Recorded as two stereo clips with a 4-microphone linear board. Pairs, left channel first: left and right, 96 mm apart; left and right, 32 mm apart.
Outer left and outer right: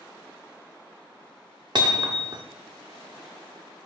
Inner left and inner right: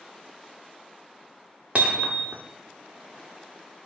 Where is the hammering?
50° right (ahead or behind), 1.1 m.